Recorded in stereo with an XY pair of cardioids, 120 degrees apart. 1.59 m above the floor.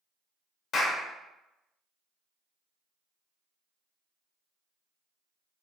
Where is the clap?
50° left, 0.8 m.